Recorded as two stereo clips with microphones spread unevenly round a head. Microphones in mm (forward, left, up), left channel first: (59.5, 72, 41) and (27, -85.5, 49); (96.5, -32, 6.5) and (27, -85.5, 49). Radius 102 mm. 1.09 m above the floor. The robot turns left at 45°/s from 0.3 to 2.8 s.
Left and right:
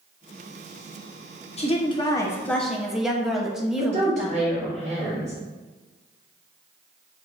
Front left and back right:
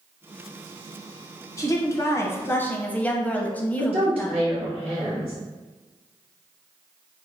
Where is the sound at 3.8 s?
145° right, 1.2 m.